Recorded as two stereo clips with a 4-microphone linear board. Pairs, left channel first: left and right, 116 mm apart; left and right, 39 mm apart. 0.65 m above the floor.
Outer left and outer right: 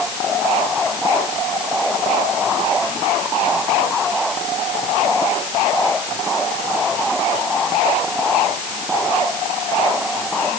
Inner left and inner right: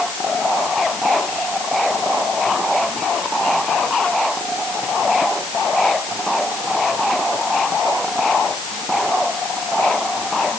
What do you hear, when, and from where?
Only background noise.